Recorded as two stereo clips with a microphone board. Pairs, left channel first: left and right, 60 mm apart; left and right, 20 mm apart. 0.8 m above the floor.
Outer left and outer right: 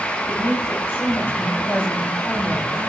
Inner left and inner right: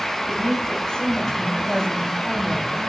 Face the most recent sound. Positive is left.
turn(degrees=35)  # may be behind; listen again after turning